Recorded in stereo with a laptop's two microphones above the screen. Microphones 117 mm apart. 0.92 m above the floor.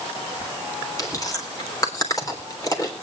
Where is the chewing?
30° left (ahead or behind), 3.5 m.